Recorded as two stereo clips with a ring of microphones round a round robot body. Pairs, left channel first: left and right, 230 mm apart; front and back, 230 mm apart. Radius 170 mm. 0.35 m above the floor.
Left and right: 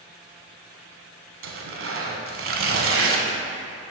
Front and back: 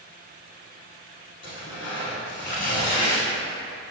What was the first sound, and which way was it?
Tearing paper, 60° right.